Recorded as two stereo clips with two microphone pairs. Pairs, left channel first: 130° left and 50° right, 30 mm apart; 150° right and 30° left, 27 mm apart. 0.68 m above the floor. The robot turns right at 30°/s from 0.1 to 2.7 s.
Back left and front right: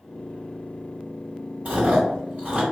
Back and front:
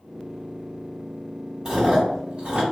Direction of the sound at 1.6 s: 35° right.